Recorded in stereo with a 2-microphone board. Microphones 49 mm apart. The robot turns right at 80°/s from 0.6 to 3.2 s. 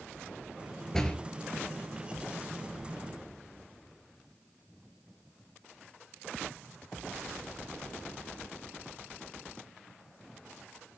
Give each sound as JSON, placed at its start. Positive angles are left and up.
{"t": 0.9, "sound": "a door slam", "side_deg": 10, "distance_m": 3.0}